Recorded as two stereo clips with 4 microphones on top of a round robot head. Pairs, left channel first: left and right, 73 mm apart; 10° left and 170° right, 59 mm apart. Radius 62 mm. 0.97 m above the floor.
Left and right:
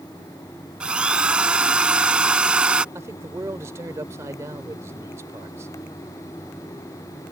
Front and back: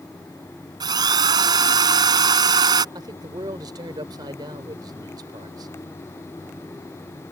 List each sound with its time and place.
0.8 s a drill: 170° right
3.0 s a man speaking: 150° right